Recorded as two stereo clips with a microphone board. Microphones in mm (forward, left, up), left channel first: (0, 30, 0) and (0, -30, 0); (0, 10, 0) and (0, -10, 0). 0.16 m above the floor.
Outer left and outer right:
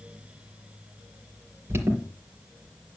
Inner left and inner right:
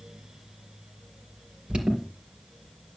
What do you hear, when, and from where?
1.7 s an alarm: 40° right (ahead or behind), 4.5 m